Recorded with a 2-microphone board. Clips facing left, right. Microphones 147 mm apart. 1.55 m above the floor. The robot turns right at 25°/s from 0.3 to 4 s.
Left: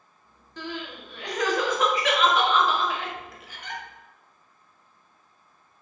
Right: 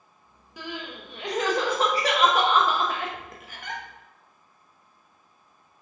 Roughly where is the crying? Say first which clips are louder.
Left 1 dB; centre.